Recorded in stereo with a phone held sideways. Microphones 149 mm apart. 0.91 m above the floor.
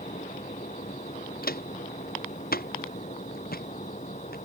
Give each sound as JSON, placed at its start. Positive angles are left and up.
{"t": 0.0, "sound": "a fan", "side_deg": 50}
{"t": 1.4, "sound": "footsteps", "side_deg": 80}